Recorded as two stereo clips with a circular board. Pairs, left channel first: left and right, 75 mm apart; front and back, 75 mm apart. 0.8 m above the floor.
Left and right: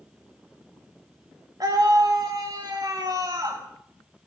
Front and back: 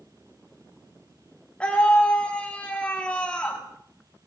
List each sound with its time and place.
1.6 s a scream: 70° right, 1.8 m